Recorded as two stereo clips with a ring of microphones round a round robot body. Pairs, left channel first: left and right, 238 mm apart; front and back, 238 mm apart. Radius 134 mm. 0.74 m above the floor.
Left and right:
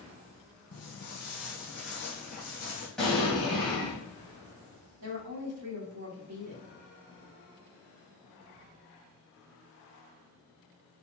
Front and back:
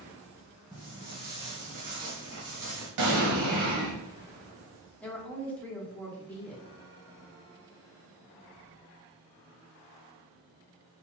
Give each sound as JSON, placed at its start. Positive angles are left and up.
{"t": 0.7, "sound": "footsteps", "azimuth_deg": 115, "distance_m": 1.5}
{"t": 3.0, "sound": "an explosion", "azimuth_deg": 175, "distance_m": 1.2}
{"t": 5.0, "sound": "a woman speaking", "azimuth_deg": -85, "distance_m": 1.5}